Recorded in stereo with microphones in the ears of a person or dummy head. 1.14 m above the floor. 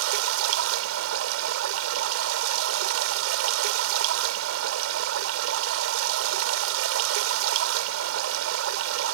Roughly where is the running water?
Right.